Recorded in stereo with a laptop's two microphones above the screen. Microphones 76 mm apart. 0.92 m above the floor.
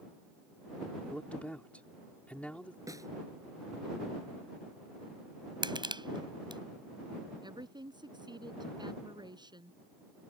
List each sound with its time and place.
1.0 s a man speaking: 15° left (ahead or behind)
2.9 s a snare drum: 45° right (ahead or behind)
5.6 s crushing: 85° right
7.4 s a woman speaking: 70° right (ahead or behind)